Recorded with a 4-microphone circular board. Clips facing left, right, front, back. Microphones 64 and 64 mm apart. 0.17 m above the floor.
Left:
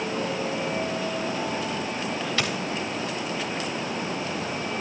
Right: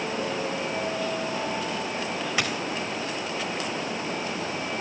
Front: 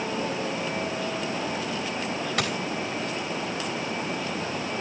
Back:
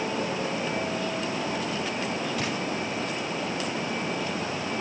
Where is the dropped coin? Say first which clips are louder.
Right 1 dB, front 2 dB; 15° right, 4.5 m.